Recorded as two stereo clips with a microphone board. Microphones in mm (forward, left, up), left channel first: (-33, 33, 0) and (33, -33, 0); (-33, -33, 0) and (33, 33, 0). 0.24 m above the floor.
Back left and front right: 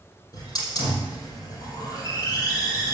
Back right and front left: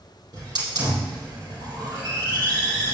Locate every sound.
0.3 s a hiss: 90° left, 5.5 m